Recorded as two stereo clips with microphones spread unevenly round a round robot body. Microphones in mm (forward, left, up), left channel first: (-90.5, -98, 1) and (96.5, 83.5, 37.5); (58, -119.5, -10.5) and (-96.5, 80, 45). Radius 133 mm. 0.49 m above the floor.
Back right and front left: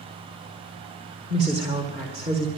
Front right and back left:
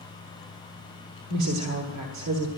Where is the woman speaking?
115° left, 1.4 m.